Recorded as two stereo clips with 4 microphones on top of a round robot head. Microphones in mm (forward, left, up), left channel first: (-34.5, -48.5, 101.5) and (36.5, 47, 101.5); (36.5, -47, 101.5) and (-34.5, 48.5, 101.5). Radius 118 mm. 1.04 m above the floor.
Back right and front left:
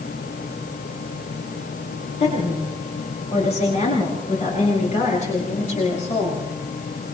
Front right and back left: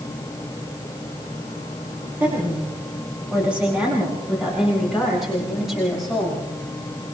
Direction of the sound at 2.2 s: 155° right.